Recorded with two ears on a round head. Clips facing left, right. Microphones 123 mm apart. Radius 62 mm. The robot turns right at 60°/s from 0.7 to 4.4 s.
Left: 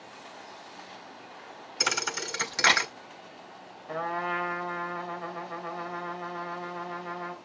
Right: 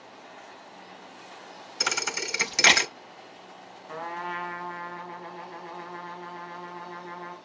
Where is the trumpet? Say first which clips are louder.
Left 3 dB; 50° left, 3 m; by 7.3 s 80° left, 3 m.